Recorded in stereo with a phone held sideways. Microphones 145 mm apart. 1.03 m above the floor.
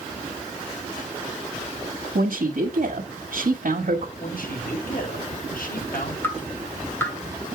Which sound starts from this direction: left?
A man speaking, at 4.2 s.